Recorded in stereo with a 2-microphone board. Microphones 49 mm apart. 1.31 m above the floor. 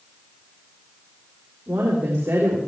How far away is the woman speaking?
About 3.5 m.